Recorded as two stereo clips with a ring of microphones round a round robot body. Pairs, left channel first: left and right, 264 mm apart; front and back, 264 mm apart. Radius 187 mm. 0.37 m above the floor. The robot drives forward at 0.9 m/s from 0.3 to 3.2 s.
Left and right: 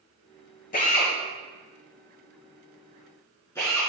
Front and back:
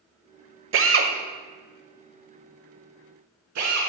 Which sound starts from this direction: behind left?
A drill, at 0.7 s.